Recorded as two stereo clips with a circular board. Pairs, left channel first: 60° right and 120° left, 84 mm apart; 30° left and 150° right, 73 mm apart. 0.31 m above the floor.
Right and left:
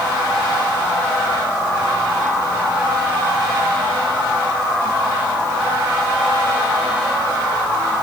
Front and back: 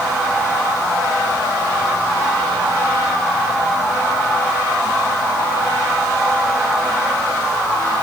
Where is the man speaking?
I don't hear a man speaking.